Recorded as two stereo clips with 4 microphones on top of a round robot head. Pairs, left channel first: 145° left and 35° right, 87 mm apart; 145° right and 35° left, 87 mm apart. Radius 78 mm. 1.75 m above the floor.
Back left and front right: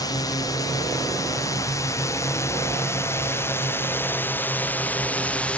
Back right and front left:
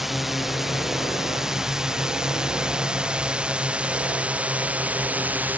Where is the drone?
120° left; by 5.6 s 85° left.